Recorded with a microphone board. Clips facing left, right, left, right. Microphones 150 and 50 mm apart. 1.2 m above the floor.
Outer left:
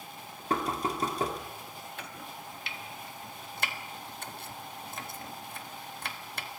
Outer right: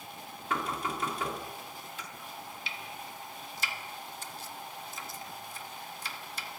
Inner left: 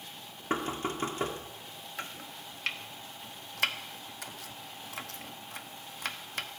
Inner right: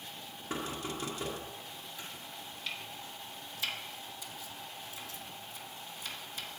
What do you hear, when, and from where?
0.5 s knocking: 35° left (ahead or behind), 2 m
2.0 s chopping: 55° left (ahead or behind), 1.2 m